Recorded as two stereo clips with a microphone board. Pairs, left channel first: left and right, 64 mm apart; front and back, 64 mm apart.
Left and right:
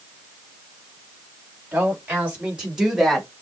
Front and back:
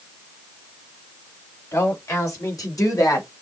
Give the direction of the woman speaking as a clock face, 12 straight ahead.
1 o'clock.